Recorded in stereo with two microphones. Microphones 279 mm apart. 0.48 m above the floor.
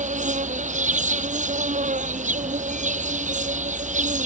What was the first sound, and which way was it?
An insect, 25° right (ahead or behind).